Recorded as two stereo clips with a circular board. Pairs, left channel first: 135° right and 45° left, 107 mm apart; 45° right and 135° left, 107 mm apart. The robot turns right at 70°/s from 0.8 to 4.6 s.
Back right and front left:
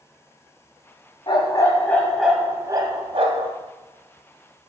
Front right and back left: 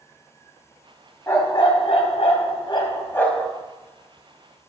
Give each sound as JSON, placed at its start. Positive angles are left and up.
{"t": 1.3, "sound": "a dog barking", "azimuth_deg": -110, "distance_m": 1.7}